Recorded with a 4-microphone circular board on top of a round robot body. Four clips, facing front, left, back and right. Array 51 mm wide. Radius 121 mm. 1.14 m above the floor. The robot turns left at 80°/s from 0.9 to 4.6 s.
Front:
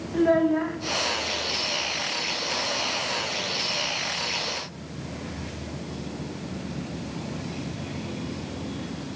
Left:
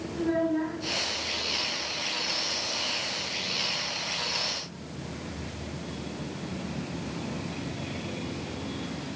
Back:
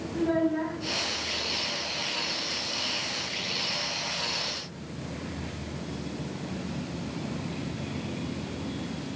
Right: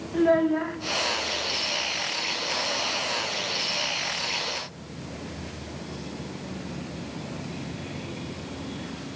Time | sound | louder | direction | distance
0.1 | a child speaking | right 6 dB, front 6 dB | 45° right | 0.6 m